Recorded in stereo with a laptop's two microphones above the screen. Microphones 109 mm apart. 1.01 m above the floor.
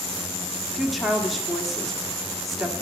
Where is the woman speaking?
Centre (ahead or behind), 2 m.